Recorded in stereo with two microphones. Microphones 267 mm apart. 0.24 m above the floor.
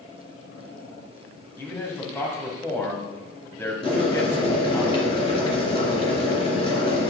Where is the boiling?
20° left (ahead or behind), 2.5 m.